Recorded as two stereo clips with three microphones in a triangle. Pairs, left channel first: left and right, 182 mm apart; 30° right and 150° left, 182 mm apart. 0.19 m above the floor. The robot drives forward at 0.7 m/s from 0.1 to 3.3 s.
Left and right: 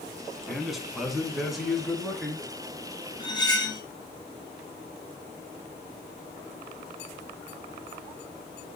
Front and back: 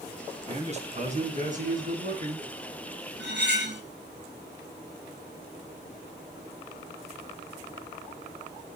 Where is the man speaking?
Straight behind, 2 m.